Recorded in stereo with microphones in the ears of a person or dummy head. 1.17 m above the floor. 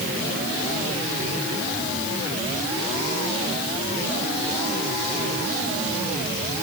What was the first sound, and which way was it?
Only background noise.